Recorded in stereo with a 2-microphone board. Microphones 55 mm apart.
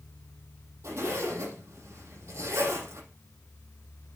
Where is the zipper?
70° right (ahead or behind), 5.5 m.